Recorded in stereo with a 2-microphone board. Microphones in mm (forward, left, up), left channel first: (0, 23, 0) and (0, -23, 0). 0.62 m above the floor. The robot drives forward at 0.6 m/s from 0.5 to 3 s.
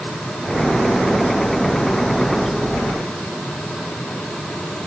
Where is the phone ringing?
No phone ringing in this recording.